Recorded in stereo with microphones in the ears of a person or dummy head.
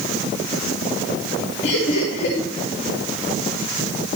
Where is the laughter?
70° left (ahead or behind), 2 m.